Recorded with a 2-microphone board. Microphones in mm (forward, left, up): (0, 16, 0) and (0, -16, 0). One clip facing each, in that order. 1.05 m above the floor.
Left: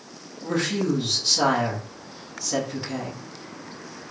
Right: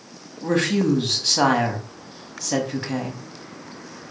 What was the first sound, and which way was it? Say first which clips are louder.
A woman speaking: right 4 dB; 55° right (ahead or behind).